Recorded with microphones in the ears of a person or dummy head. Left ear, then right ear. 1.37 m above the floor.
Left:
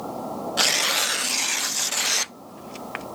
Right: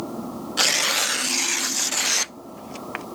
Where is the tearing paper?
5° right (ahead or behind).